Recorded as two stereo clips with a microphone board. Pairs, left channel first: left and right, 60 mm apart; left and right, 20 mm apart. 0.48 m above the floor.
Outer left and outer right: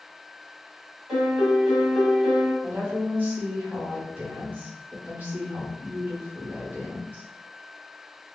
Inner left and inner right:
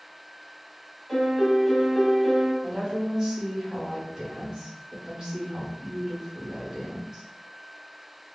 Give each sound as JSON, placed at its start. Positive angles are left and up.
{"t": 1.1, "sound": "a piano", "side_deg": -10, "distance_m": 1.4}
{"t": 2.6, "sound": "a woman speaking", "side_deg": -35, "distance_m": 1.3}